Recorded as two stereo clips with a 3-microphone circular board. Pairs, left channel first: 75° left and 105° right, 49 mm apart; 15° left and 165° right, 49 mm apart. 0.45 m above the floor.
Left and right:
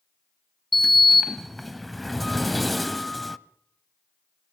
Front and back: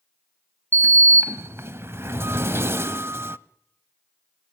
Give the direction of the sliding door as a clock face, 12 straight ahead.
7 o'clock.